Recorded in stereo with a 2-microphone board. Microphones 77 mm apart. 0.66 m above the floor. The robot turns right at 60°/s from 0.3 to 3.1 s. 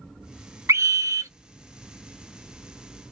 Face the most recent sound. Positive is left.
turn(degrees=30)